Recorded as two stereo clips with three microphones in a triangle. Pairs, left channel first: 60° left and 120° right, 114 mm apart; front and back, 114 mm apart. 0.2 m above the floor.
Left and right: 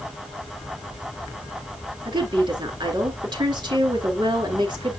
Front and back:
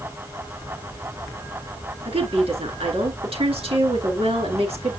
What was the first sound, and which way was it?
A woman speaking, 165° right.